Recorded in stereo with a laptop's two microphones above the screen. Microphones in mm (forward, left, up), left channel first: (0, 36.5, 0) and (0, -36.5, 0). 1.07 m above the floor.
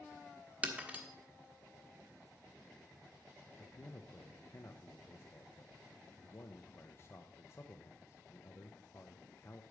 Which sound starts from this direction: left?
A man speaking, at 3.6 s.